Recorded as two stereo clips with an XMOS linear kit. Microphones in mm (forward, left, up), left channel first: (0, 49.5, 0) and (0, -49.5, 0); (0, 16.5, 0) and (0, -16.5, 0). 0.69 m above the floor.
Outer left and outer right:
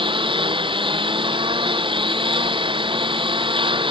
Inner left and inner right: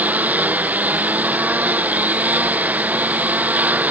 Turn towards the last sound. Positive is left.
turn(degrees=-60)  # may be behind; listen again after turning